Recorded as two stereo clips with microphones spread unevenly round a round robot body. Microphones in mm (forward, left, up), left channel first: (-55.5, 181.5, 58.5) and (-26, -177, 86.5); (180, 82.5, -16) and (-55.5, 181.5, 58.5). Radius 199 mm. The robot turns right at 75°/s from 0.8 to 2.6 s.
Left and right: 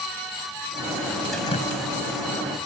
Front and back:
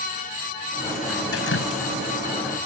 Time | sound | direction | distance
1.3 | dripping | 5° left | ?